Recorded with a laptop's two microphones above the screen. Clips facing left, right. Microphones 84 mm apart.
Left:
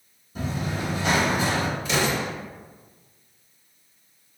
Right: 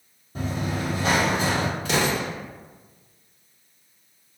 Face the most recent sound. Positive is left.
turn(degrees=-65)  # may be behind; listen again after turning